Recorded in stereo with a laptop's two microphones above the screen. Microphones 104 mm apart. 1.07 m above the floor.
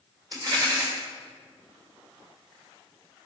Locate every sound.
0.3 s a rattle: 40° right (ahead or behind), 2 m